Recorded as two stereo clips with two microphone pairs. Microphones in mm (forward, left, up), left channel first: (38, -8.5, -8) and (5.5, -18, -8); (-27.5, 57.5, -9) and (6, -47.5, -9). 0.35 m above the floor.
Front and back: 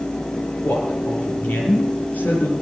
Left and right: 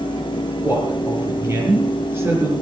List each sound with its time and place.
0.6 s a man speaking: straight ahead, 6 m